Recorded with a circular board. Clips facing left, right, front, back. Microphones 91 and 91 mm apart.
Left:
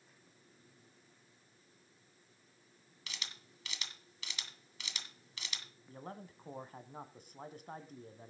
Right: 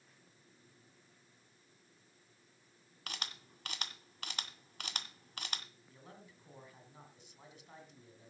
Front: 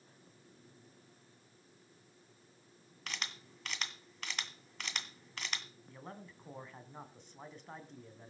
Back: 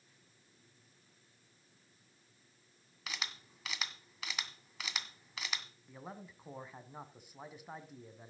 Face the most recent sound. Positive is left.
turn(degrees=100)